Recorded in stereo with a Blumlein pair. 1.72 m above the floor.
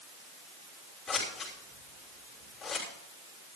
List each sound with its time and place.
1.1 s scissors: 20° left, 6 m